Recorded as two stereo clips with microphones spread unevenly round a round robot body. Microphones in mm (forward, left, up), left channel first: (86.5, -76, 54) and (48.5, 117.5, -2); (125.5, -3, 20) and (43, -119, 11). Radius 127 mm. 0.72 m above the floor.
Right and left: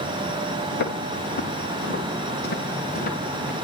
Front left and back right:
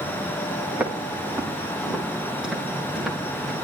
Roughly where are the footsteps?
Ahead right.